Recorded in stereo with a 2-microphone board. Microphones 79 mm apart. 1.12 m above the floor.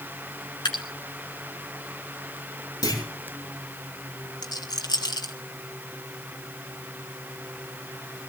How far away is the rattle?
About 2.0 m.